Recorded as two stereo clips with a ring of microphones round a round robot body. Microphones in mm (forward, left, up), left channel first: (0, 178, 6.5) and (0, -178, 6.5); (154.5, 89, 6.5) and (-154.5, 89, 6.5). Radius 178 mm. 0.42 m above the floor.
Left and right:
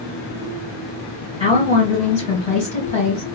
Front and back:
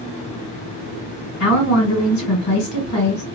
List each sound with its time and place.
1.4 s a woman speaking: 25° left, 2 m